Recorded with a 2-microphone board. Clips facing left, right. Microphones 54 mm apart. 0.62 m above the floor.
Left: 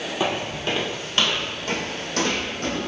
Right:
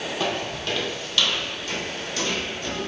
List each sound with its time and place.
0.2 s footsteps: 15° left (ahead or behind), 1.4 m; by 2.9 s 55° left (ahead or behind), 2.0 m